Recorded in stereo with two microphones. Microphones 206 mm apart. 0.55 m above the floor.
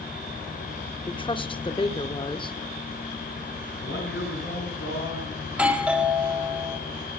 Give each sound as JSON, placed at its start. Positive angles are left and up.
{"t": 1.1, "sound": "a woman speaking", "side_deg": 25, "distance_m": 1.1}
{"t": 3.8, "sound": "a man speaking", "side_deg": 80, "distance_m": 6.0}
{"t": 5.5, "sound": "a doorbell", "side_deg": -5, "distance_m": 1.9}